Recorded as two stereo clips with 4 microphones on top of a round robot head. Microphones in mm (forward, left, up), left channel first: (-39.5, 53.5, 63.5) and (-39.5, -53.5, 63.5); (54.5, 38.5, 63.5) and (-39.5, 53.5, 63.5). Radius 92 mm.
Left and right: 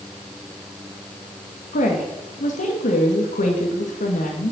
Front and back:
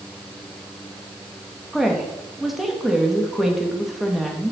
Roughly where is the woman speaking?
Left.